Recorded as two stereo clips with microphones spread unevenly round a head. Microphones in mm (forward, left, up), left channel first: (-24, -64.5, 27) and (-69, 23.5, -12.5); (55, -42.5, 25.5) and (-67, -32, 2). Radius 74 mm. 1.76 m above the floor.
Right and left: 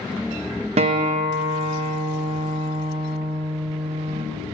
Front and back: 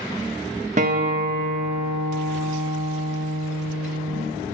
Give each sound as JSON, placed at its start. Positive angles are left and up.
{"t": 0.8, "sound": "a guitar", "azimuth_deg": 130, "distance_m": 0.6}